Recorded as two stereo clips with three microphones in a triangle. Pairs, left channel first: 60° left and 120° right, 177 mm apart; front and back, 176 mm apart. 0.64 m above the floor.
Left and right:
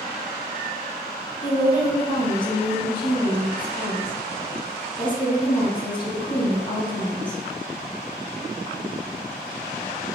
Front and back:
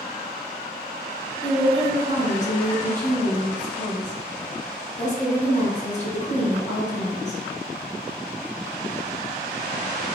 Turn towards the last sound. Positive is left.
turn(degrees=10)